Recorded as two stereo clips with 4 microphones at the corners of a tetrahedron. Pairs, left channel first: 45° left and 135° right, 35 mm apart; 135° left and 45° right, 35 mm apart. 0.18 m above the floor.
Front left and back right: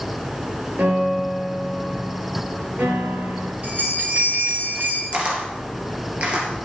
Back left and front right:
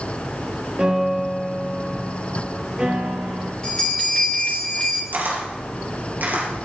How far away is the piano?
About 3 m.